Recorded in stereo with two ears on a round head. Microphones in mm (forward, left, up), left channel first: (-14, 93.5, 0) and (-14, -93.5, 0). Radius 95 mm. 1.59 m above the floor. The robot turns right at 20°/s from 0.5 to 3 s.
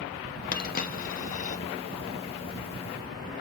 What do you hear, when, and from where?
0.5 s a dropped coin: 45° left (ahead or behind), 1.1 m; by 1.6 s 35° left (ahead or behind), 1.1 m